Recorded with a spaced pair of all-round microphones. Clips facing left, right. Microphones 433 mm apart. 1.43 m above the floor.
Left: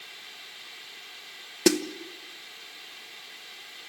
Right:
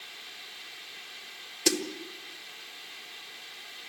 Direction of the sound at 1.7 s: 70° left (ahead or behind).